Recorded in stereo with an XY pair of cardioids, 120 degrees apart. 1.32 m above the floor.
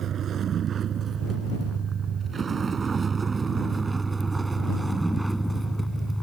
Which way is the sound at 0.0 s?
50° right.